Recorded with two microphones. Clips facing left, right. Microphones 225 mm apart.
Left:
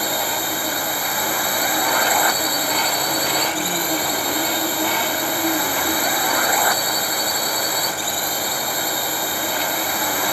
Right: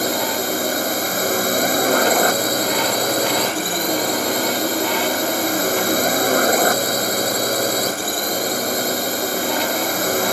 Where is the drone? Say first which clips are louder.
Right 5 dB; 45° right (ahead or behind).